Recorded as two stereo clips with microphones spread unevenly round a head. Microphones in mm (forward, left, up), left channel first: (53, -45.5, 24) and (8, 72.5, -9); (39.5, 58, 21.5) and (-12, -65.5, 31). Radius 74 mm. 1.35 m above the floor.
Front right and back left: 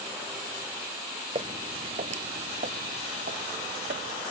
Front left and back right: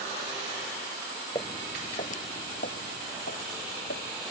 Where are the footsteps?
90° left; by 4.1 s 80° left.